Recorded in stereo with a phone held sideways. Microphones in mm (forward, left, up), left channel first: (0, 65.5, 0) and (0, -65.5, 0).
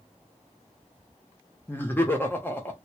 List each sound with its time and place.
1.7 s laughter: 15° left (ahead or behind), 0.7 m